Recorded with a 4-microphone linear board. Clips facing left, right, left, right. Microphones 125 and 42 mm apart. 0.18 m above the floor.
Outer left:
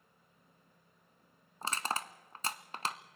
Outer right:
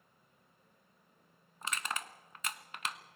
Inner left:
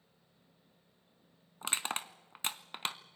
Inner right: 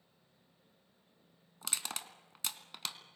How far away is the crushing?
About 0.9 m.